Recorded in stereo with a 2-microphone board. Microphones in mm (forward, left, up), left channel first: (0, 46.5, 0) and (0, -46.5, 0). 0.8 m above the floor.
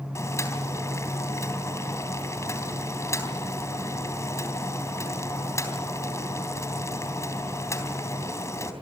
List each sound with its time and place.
0.1 s boiling: 30° left (ahead or behind), 3.5 m